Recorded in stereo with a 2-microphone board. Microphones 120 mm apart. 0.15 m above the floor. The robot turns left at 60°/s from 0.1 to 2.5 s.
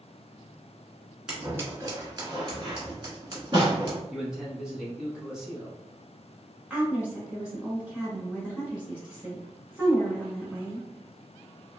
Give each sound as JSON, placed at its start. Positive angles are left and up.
{"t": 1.3, "sound": "scissors", "side_deg": -5, "distance_m": 1.4}
{"t": 4.1, "sound": "a man speaking", "side_deg": -5, "distance_m": 1.1}
{"t": 6.7, "sound": "a woman speaking", "side_deg": -10, "distance_m": 1.5}